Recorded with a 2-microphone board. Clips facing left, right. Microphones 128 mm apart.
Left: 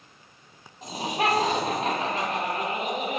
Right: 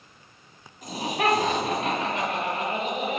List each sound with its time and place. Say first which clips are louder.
0.8 s laughter: right 1 dB; 25° left (ahead or behind), 1.3 m; by 3.2 s 45° left (ahead or behind), 2 m